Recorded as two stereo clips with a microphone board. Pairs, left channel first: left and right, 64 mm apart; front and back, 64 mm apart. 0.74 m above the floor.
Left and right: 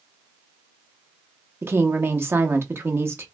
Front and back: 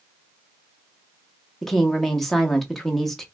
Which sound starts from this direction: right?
A woman speaking, at 1.6 s.